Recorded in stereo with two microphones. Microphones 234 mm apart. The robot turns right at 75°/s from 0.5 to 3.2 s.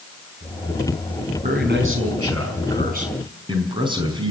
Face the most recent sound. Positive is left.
turn(degrees=-20)